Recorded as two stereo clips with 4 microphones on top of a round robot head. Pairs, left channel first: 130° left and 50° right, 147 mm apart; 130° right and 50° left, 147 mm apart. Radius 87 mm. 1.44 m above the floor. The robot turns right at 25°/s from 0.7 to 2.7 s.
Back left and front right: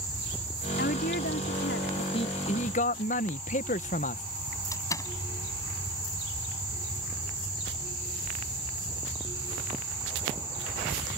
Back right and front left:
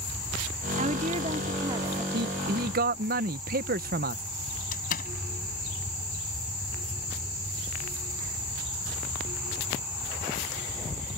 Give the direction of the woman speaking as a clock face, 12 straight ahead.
9 o'clock.